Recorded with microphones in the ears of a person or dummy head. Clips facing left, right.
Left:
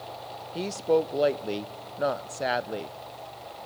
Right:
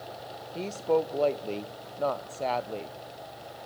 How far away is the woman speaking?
About 0.5 m.